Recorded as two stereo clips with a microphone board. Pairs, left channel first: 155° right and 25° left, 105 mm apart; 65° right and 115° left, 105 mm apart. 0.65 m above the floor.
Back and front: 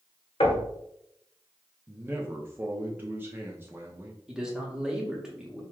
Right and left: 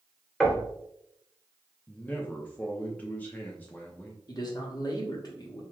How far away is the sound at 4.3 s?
About 1.1 m.